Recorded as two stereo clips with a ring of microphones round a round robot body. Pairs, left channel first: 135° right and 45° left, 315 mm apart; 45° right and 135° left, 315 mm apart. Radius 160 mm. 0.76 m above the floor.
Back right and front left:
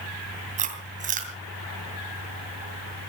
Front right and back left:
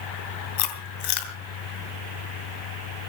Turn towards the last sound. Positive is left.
turn(degrees=-25)